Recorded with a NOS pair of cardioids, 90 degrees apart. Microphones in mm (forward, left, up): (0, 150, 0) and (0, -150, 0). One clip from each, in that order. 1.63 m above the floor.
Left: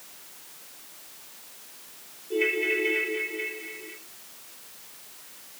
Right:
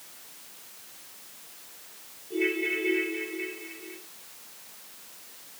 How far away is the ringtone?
About 6 m.